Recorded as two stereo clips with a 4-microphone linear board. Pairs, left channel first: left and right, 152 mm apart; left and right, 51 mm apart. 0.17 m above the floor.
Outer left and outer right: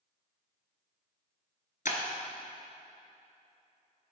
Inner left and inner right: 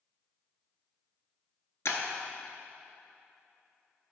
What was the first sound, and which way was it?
Breaking glass, 70° left (ahead or behind).